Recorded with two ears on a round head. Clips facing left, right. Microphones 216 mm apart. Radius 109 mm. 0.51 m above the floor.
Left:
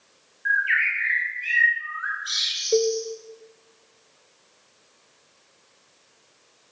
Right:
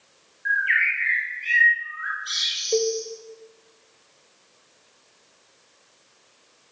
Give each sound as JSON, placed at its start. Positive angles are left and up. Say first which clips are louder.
{"t": 0.5, "sound": "a bird", "louder": "even", "side_deg": 5, "distance_m": 7.5}
{"t": 2.7, "sound": "a cowbell", "louder": "left 2 dB", "side_deg": 15, "distance_m": 0.6}